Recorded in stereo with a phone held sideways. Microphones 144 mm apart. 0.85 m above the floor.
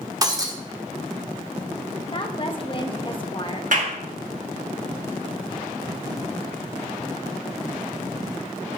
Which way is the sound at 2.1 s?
35° left (ahead or behind).